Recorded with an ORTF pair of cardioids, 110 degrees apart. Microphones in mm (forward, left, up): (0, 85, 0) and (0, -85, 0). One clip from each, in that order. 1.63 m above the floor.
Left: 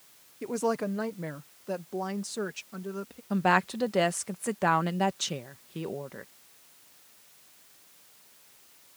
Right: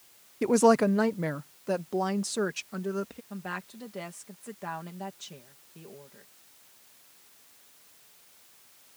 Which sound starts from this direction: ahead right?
A woman speaking, at 0.4 s.